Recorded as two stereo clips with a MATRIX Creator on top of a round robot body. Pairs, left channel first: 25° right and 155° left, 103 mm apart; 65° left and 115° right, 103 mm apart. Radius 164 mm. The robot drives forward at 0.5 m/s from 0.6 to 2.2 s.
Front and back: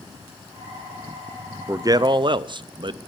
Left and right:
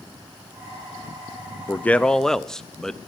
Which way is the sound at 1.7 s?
120° left.